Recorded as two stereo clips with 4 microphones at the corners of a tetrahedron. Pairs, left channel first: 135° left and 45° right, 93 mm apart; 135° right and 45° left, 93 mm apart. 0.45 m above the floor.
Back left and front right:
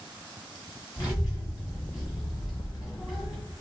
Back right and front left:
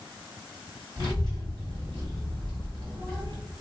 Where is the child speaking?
90° left, 1.6 m.